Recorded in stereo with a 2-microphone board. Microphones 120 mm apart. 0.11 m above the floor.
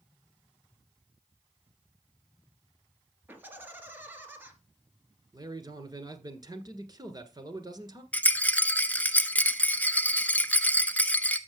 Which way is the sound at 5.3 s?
35° right (ahead or behind).